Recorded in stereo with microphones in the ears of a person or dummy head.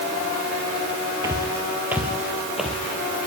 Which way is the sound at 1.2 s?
20° right (ahead or behind).